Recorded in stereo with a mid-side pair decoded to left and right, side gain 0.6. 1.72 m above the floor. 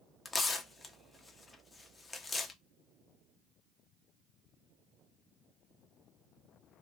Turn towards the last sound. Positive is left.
turn(degrees=25)